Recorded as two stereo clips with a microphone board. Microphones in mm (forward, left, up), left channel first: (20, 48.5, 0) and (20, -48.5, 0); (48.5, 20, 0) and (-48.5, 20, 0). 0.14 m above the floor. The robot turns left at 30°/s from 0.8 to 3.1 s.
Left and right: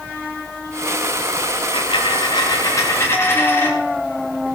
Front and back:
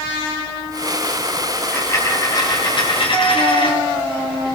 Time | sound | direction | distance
1.7 | a dropped coin | 65° left | 7.5 m